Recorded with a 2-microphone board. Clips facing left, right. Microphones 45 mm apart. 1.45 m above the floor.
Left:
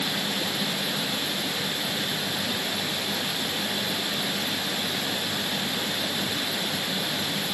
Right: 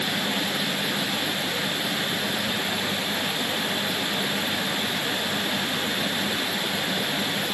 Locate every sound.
Only background noise.